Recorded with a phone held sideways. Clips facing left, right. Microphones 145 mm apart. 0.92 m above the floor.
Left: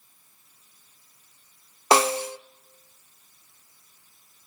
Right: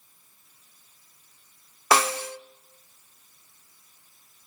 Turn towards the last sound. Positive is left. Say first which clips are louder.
# left 3 dB
turn(degrees=25)  # may be behind; listen again after turning